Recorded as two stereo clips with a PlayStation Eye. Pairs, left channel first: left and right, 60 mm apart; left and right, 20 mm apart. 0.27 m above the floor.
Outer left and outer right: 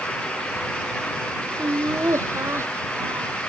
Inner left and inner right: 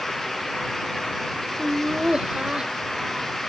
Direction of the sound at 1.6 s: 50° right (ahead or behind).